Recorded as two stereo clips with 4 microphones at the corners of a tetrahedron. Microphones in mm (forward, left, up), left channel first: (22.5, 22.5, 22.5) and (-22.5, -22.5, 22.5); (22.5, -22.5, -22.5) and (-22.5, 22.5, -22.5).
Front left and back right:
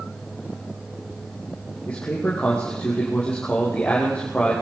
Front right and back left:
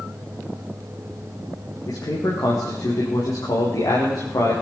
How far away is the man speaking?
About 4.5 m.